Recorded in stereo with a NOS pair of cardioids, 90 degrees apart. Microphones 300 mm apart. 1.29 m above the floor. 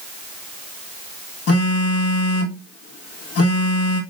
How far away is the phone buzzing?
About 1.6 m.